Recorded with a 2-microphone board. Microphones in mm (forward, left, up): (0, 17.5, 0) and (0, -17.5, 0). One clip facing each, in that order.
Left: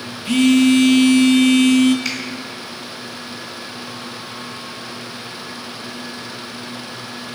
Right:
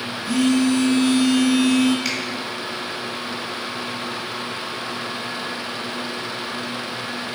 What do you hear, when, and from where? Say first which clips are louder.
0.2 s a phone buzzing: left 5 dB; 80° left, 0.6 m
2.0 s a finger snap: even; centre (ahead or behind), 2 m